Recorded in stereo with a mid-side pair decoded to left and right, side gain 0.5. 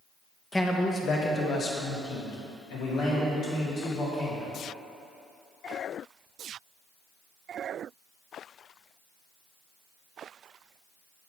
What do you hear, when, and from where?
0.5 s a man speaking: 15° left, 0.9 m; by 4.5 s 80° left, 3.5 m